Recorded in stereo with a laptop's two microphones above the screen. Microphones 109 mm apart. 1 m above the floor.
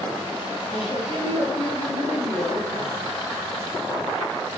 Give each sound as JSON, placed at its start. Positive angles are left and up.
{"t": 0.7, "sound": "a woman speaking", "side_deg": 65, "distance_m": 3.5}